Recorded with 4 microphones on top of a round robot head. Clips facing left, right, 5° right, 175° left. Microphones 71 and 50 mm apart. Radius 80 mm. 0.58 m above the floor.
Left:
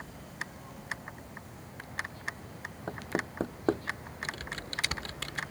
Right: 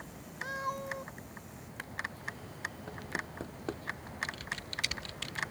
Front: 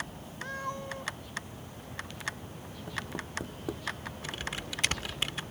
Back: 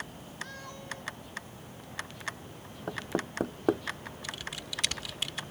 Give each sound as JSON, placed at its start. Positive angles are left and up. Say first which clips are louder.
{"t": 0.4, "sound": "a cat meowing", "louder": "right 8 dB, front 7 dB", "azimuth_deg": -70}
{"t": 2.9, "sound": "knocking", "louder": "left 10 dB, back 5 dB", "azimuth_deg": 140}
{"t": 4.2, "sound": "typing on a keyboard", "louder": "left 3 dB, front 3 dB", "azimuth_deg": 45}